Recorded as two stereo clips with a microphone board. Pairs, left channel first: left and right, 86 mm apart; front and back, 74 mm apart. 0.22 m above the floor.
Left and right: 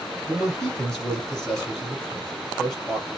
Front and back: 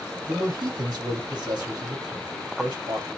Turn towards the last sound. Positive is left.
turn(degrees=175)